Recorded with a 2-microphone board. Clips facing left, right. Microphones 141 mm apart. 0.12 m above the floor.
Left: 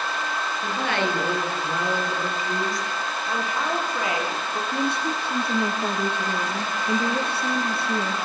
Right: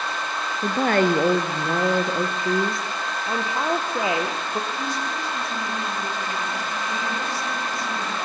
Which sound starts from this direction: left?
A woman speaking, at 4.7 s.